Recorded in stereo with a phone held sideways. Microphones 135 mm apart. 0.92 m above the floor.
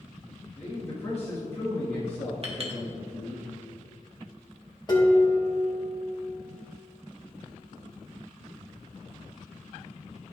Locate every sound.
0.6 s a man speaking: 20° left (ahead or behind), 1.4 m
2.4 s a clink: 45° right (ahead or behind), 1.2 m
4.9 s dishes clattering: 30° left (ahead or behind), 1.4 m